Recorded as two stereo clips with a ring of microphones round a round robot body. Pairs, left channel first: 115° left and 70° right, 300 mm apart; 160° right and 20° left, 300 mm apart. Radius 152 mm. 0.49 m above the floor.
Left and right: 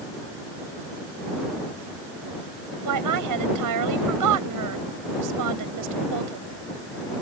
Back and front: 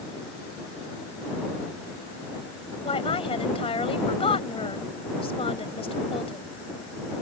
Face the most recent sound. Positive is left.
turn(degrees=-85)